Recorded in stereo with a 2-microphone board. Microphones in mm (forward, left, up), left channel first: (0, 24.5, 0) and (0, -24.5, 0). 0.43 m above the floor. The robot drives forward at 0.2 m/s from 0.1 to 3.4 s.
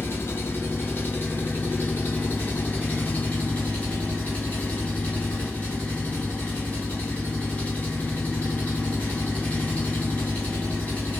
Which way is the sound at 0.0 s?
55° left (ahead or behind).